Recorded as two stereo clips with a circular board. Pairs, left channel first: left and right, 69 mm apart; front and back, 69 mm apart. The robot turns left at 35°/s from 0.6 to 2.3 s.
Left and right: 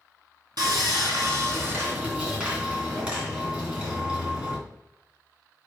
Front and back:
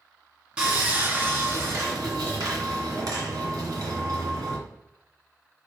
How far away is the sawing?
About 2.5 m.